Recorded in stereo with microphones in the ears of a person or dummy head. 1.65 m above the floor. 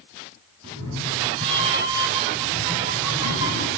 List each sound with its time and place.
0.6 s a cat meowing: 30° right (ahead or behind), 7 m; by 3.7 s 15° right (ahead or behind), 5.5 m